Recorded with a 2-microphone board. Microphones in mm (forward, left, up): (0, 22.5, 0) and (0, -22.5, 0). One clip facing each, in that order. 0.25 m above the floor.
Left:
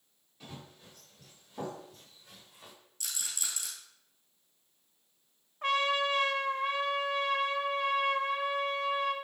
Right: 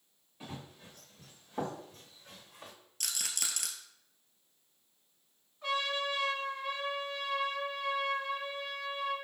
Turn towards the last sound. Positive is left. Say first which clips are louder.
# left 5 dB
turn(degrees=55)  # may be behind; listen again after turning